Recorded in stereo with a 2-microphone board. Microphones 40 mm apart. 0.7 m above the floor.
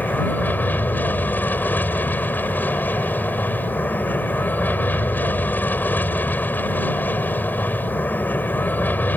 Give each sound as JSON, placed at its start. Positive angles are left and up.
{"t": 0.0, "sound": "an aircraft", "side_deg": 45}